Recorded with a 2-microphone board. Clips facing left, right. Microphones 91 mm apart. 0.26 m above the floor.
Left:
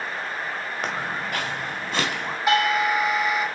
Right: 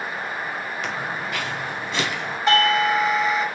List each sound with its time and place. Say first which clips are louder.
0.8 s footsteps: left 2 dB; 45° left (ahead or behind), 2 m; by 2.4 s 50° left (ahead or behind), 3 m
2.5 s a doorbell: right 2 dB; 5° left (ahead or behind), 1.7 m